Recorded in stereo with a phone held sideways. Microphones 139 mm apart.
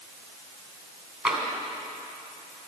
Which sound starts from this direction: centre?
Tapping, at 1.2 s.